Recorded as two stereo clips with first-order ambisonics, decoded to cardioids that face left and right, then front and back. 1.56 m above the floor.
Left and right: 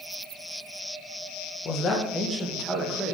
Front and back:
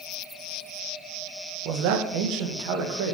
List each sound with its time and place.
1.6 s a man speaking: 150° left, 1.9 m; by 3.1 s 170° right, 3 m